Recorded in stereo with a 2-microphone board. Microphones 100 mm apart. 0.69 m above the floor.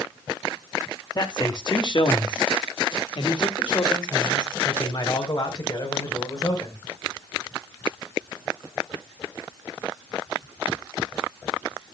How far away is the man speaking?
About 1.6 m.